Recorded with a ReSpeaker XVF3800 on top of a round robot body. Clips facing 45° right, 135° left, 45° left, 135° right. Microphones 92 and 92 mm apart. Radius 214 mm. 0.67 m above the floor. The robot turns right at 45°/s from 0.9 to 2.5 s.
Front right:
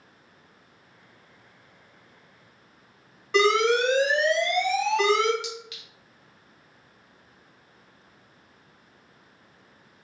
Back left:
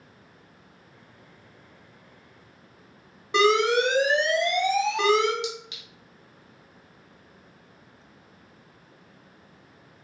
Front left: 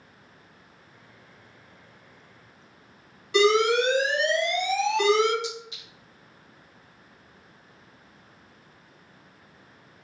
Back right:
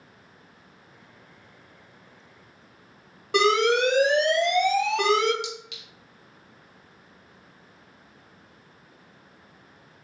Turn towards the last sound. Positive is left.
turn(degrees=-160)